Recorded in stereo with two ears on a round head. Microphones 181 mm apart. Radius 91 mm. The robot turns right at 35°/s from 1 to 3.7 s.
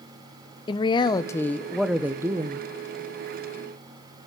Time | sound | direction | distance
0.7 | a man speaking | 155° left | 0.5 m